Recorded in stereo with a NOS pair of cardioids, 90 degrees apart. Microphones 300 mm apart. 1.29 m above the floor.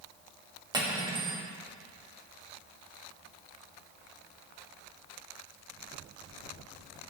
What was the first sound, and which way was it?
Cutlery clinking, 15° right.